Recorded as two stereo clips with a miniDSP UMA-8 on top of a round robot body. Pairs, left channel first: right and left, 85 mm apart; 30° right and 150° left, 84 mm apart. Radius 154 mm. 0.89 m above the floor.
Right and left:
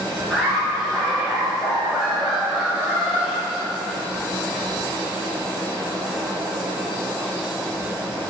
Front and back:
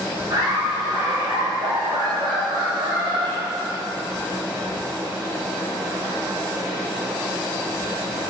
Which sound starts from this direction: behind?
Laughter, at 0.3 s.